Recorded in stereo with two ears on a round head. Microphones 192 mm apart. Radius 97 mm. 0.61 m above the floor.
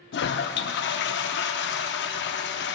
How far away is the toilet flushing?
About 0.5 m.